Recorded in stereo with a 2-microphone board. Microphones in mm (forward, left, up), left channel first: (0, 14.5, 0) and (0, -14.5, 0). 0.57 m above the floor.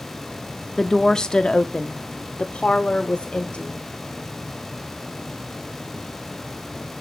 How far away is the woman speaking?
About 0.8 m.